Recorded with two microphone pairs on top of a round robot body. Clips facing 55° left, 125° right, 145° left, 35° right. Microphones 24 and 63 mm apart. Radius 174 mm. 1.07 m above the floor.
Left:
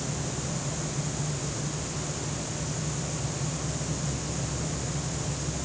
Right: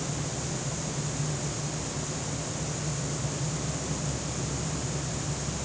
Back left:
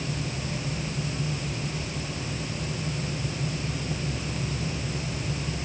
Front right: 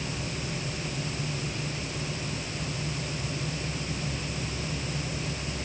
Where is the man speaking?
No man speaking in this recording.